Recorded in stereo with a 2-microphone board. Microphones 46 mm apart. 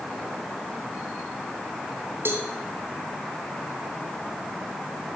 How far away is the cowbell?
About 1.5 m.